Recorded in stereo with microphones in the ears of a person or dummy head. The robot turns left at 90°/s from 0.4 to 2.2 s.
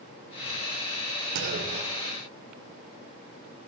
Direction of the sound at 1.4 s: 60° right (ahead or behind).